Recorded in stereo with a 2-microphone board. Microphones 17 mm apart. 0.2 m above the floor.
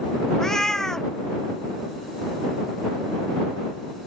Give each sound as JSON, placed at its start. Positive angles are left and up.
{"t": 0.4, "sound": "a cat meowing", "side_deg": 25}